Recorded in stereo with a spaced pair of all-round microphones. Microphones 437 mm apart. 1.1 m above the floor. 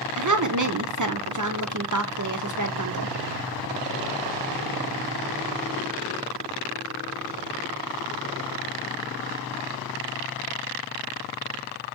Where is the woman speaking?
45° right (ahead or behind), 0.7 m.